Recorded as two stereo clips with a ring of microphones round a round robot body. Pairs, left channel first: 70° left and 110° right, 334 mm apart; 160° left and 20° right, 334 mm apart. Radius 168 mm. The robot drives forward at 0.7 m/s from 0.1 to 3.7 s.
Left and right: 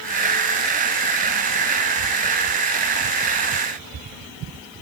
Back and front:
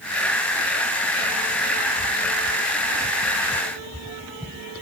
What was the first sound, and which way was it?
Only background noise.